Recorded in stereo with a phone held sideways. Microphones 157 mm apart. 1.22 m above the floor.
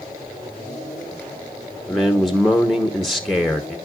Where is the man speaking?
Centre (ahead or behind), 1.0 m.